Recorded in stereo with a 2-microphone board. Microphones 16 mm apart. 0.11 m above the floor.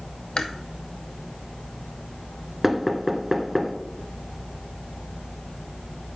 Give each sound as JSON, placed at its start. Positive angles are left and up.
{"t": 0.4, "sound": "chewing", "side_deg": 70, "distance_m": 0.7}
{"t": 2.6, "sound": "knocking", "side_deg": -10, "distance_m": 0.9}